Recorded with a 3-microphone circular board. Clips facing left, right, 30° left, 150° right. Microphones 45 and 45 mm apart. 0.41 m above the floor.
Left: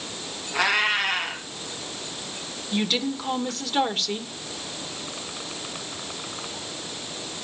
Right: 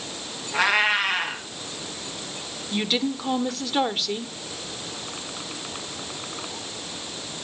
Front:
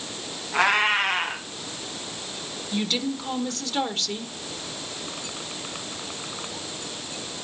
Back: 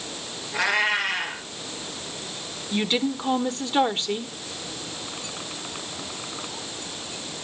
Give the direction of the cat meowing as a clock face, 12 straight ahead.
12 o'clock.